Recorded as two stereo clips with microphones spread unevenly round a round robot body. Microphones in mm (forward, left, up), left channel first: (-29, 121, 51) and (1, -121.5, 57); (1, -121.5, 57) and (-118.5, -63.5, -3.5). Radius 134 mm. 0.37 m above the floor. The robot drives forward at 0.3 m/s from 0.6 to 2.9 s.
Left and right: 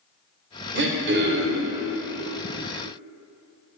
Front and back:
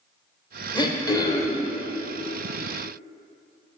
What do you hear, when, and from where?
0.8 s throat clearing: 100° right, 1.9 m; by 1.7 s 115° right, 2 m